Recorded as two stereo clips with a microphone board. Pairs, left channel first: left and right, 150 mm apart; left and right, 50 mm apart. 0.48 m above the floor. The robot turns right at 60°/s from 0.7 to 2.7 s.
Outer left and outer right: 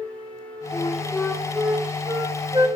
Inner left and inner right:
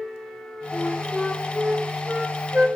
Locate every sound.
0.7 s a flute: 20° left (ahead or behind), 1.5 m; by 2.7 s 30° right (ahead or behind), 1.5 m